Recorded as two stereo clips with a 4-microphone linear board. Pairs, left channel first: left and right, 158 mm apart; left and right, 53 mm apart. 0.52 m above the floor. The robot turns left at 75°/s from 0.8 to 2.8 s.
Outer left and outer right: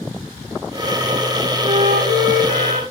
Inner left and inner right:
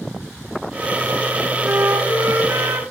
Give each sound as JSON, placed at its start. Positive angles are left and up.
{"t": 1.6, "sound": "a flute", "azimuth_deg": -25, "distance_m": 2.5}